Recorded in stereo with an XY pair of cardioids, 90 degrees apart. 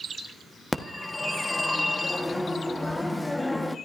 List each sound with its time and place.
0.7 s a phone ringing: 10° left, 1.3 m